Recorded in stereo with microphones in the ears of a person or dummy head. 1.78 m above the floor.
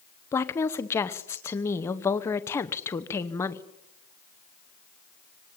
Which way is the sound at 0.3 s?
15° left (ahead or behind).